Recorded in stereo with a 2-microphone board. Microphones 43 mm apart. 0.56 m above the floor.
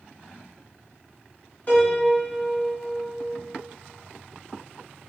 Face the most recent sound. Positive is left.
turn(degrees=35)  # may be behind; listen again after turning